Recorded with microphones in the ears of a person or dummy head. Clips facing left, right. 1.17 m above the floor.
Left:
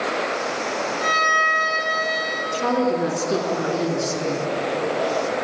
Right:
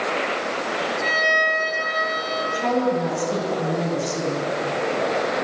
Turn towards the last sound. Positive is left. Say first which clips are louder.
# left 1 dB
turn(degrees=85)